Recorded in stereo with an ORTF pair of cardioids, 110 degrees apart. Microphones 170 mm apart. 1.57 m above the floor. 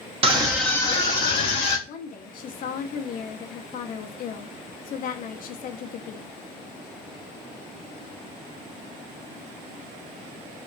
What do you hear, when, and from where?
0.2 s a scream: 35° right, 0.6 m; by 1.8 s 70° left, 1.1 m
1.9 s a woman speaking: 55° left, 0.6 m